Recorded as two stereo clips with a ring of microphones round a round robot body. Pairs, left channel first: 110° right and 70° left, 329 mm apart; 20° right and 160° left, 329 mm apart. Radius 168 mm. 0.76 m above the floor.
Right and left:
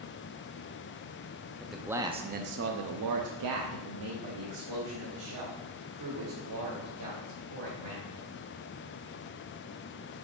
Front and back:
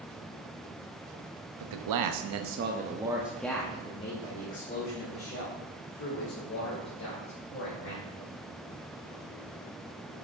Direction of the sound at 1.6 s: 160° left.